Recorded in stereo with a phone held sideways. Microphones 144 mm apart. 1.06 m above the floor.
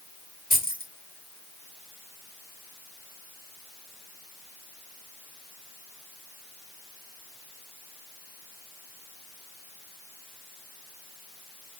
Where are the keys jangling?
75° left (ahead or behind), 1.5 m.